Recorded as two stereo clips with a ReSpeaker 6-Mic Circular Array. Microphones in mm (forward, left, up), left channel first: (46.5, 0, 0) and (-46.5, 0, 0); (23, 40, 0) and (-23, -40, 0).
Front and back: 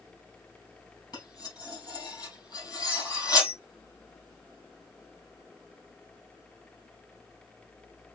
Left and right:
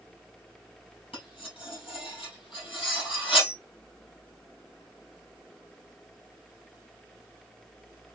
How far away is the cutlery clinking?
About 3.5 m.